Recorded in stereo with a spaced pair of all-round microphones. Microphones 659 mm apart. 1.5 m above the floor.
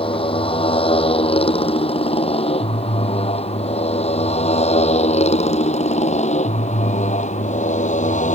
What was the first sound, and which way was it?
A motorcycle, 10° left (ahead or behind).